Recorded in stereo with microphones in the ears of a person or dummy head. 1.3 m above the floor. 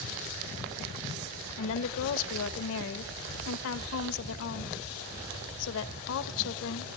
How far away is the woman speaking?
About 1.2 m.